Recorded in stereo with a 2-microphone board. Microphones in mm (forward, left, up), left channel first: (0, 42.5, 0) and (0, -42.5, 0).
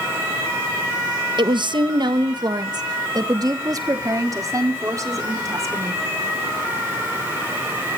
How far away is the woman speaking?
About 1.1 m.